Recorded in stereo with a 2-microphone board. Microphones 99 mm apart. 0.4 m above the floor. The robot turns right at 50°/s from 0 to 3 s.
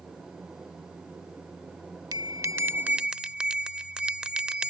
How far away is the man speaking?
I don't hear a man speaking.